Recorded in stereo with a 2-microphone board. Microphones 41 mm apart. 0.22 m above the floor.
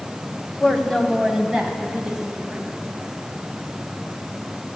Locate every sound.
0.6 s a woman speaking: 20° left (ahead or behind), 1.3 m; by 2.7 s 15° right (ahead or behind), 2.5 m